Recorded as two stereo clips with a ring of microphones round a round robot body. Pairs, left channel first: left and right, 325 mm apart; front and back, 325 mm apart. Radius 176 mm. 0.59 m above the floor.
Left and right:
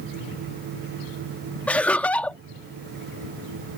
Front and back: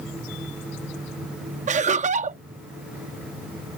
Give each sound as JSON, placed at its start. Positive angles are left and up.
{"t": 1.7, "sound": "laughter", "azimuth_deg": 170}